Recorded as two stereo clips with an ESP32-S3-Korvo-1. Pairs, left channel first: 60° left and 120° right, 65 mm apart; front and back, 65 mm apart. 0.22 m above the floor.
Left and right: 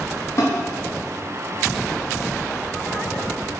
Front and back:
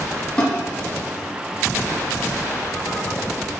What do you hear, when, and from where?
0.4 s a snare drum: 65° left, 1.8 m